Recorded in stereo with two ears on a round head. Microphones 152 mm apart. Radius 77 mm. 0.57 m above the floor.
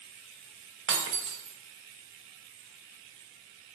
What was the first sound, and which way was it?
Breaking glass, 85° right.